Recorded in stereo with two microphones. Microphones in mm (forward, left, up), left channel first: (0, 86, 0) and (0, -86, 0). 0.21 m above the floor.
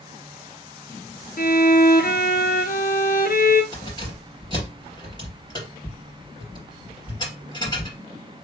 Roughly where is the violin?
Left.